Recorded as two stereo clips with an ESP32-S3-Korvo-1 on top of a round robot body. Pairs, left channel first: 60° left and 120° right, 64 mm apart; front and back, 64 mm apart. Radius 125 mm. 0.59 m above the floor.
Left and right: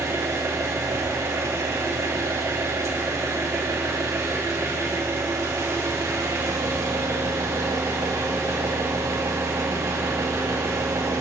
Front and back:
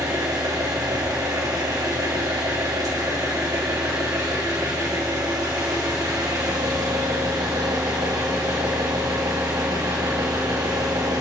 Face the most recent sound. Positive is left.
turn(degrees=-155)